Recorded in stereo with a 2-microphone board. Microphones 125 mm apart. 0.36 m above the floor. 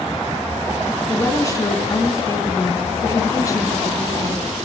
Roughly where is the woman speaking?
Left.